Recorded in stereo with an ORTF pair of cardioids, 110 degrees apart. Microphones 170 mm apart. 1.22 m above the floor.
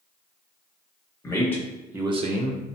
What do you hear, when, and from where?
1.2 s a man speaking: 20° left, 1.1 m; by 2.6 s 75° right, 0.6 m